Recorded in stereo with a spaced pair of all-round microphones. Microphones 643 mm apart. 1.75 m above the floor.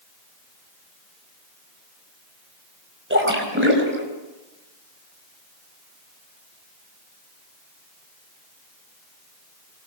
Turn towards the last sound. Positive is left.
turn(degrees=-20)  # may be behind; listen again after turning